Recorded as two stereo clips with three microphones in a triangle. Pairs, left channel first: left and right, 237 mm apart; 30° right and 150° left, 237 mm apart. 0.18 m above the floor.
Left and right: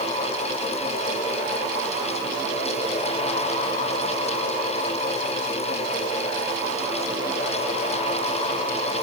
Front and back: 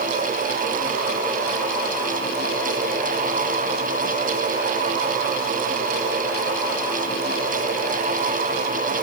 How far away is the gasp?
I don't hear a gasp.